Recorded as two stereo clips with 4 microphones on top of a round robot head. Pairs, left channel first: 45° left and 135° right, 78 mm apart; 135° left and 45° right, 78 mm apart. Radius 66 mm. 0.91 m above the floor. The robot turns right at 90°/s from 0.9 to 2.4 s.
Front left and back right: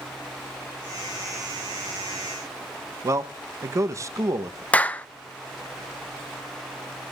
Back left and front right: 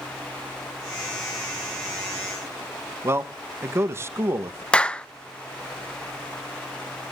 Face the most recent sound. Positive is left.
turn(degrees=80)